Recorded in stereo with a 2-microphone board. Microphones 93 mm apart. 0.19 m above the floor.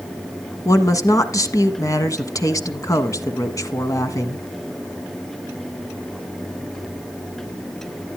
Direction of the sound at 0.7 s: 35° left (ahead or behind).